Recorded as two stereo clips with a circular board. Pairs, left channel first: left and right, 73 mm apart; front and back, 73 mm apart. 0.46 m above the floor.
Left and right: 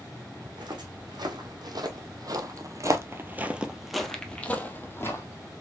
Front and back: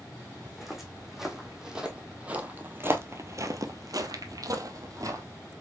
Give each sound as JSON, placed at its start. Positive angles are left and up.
{"t": 0.5, "sound": "footsteps", "azimuth_deg": -90, "distance_m": 1.7}